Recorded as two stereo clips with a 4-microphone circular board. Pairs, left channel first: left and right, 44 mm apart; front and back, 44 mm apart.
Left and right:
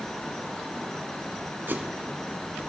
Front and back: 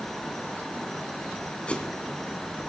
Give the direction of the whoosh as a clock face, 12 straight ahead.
2 o'clock.